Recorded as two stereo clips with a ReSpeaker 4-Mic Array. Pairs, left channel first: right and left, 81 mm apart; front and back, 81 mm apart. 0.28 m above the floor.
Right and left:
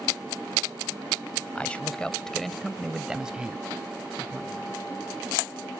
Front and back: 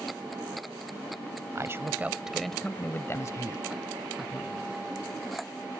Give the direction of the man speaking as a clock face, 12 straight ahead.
5 o'clock.